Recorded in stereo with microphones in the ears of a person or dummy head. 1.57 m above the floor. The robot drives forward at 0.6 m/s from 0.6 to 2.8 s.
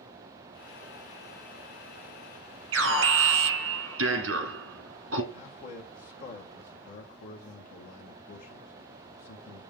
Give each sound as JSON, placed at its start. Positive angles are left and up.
{"t": 2.7, "sound": "an alarm", "side_deg": -65, "distance_m": 1.2}
{"t": 5.3, "sound": "a man speaking", "side_deg": 50, "distance_m": 1.3}